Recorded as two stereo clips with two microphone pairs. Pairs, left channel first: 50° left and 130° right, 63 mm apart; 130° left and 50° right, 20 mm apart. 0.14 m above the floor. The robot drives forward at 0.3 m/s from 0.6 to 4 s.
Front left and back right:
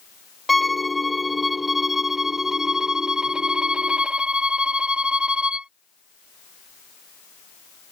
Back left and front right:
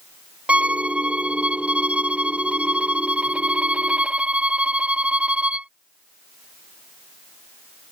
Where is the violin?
35° right; by 5.7 s 50° right.